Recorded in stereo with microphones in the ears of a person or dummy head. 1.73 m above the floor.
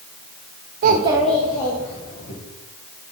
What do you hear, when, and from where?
0.8 s a child speaking: 40° right (ahead or behind), 0.6 m; by 2.3 s 35° left (ahead or behind), 1.6 m